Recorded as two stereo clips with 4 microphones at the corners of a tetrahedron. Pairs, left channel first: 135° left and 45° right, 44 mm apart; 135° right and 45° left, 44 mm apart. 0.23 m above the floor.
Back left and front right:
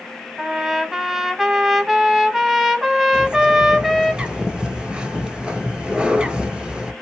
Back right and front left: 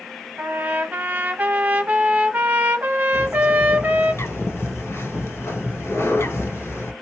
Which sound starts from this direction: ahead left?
A trumpet, at 0.4 s.